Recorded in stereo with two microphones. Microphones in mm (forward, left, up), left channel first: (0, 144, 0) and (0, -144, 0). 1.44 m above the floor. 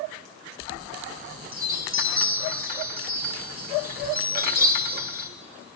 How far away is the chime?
About 1.1 m.